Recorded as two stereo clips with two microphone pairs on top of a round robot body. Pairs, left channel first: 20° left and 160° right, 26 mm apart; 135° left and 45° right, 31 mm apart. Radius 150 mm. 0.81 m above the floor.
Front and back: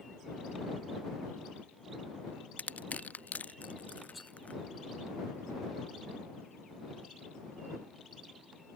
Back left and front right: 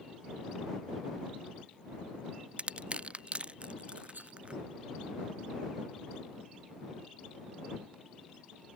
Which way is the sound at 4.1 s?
70° right.